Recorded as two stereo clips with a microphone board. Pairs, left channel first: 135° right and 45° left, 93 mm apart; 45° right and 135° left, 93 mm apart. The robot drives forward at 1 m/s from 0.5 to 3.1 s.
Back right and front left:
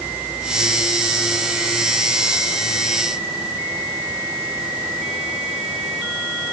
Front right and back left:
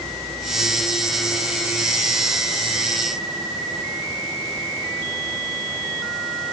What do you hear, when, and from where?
Only background noise.